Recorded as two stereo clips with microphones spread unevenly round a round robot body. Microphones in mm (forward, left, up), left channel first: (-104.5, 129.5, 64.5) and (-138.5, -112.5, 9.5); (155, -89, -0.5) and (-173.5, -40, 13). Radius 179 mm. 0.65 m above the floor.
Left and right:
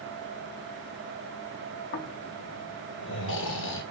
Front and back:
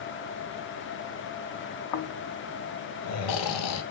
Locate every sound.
1.9 s snoring: 30° left, 0.5 m